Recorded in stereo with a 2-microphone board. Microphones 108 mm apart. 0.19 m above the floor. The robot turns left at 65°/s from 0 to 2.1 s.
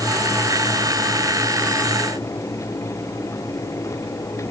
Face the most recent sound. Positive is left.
No sound to turn to.